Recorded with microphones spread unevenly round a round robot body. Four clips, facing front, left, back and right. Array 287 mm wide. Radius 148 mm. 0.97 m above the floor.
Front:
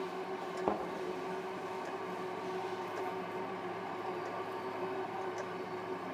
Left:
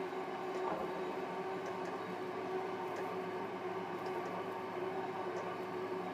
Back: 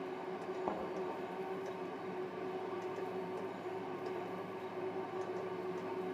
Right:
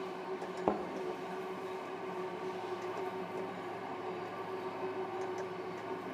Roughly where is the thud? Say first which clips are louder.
Right 10 dB, front 7 dB; right.